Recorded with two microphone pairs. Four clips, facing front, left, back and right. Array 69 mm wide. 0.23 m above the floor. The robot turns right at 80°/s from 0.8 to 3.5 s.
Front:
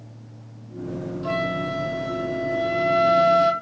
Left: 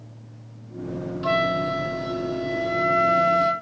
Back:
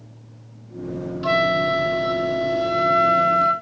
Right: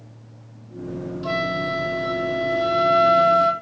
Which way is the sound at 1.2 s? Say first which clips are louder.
Left 2 dB, back 7 dB; 145° left.